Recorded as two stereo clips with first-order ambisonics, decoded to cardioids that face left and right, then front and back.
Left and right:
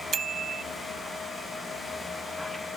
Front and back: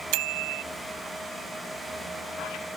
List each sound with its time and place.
0.1 s a bicycle bell: 155° right